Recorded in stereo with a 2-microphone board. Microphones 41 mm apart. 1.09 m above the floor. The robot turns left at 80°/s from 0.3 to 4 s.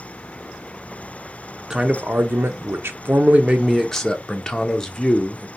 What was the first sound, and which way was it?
A man speaking, 5° right.